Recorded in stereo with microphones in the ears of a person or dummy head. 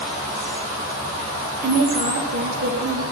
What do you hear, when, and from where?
1.6 s a woman speaking: 60° right (ahead or behind), 1.7 m; by 3.0 s 65° right (ahead or behind), 3 m